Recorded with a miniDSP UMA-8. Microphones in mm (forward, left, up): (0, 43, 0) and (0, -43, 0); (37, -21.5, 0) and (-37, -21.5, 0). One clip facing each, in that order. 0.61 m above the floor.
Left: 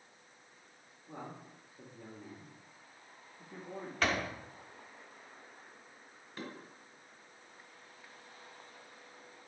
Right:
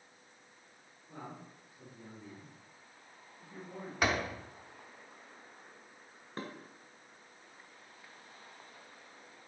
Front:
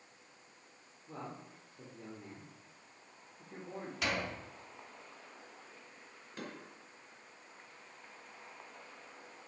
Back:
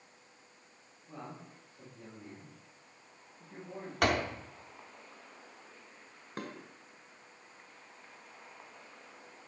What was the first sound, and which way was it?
A man speaking, 50° left.